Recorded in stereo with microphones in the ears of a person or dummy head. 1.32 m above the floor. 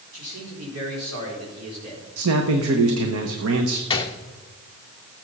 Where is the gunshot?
30° left (ahead or behind), 1.0 m.